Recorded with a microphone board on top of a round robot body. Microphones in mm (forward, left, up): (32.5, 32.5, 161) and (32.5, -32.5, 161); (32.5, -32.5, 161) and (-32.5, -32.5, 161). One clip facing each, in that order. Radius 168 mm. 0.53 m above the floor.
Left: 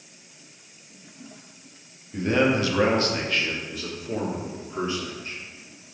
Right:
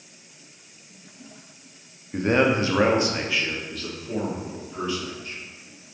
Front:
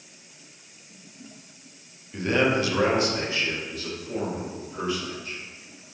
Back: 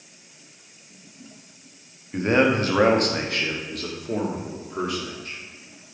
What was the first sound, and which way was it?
A man speaking, 120° right.